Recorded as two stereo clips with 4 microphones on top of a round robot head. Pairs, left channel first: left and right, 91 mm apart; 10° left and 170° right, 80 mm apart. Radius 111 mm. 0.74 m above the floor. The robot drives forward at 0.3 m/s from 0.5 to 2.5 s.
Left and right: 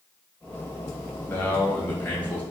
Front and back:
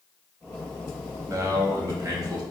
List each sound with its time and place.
1.3 s a man speaking: 150° left, 1.2 m; by 2.4 s 160° left, 1.4 m